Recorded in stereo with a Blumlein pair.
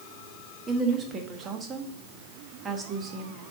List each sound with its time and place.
0.7 s a woman speaking: 20° right, 1.4 m